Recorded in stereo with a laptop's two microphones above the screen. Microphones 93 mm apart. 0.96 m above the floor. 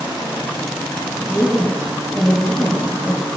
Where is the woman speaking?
5° right (ahead or behind), 7.5 m.